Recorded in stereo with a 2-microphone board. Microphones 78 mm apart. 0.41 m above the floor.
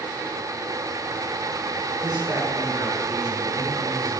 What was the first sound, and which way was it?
A man speaking, 65° right (ahead or behind).